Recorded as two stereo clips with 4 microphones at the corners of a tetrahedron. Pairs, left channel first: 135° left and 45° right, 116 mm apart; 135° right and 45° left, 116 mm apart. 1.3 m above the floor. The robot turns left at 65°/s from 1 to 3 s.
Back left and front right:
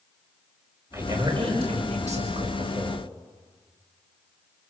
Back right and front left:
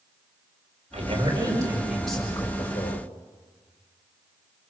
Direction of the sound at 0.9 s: 25° left.